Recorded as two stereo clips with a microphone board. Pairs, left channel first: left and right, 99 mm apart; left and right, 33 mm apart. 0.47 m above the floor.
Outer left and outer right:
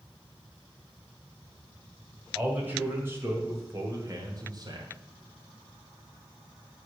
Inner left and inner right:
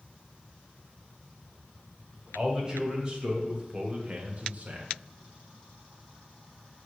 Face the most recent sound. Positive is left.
turn(degrees=-45)  # may be behind; listen again after turning